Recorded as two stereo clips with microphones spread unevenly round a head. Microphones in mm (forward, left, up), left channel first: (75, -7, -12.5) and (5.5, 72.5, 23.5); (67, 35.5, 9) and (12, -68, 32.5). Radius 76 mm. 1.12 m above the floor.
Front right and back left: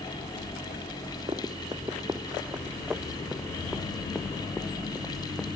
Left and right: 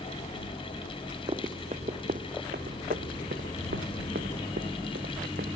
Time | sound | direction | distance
1.3 | running footsteps | 175° right | ?